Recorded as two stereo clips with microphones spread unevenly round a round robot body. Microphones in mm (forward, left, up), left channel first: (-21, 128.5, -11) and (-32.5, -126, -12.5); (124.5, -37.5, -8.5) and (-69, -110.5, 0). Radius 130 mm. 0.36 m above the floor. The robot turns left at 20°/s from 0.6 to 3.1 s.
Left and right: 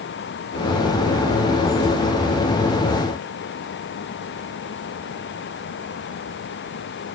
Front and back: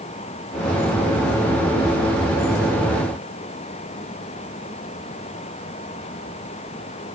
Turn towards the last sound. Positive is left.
No sound to turn to.